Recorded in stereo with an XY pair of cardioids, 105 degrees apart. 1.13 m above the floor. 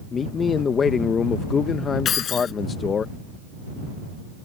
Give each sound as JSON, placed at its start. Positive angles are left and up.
{"t": 0.1, "sound": "a man speaking", "azimuth_deg": 45}
{"t": 2.0, "sound": "keys jangling", "azimuth_deg": 55}